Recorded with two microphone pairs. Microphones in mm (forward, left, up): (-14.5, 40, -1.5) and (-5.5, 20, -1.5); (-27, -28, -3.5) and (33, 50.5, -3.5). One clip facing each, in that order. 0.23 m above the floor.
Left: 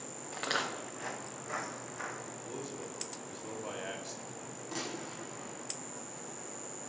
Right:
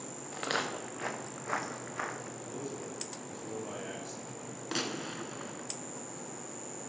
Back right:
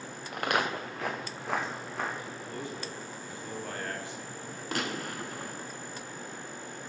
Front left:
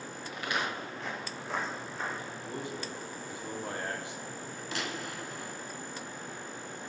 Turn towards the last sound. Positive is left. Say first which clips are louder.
# right 5 dB, back right 4 dB
turn(degrees=-95)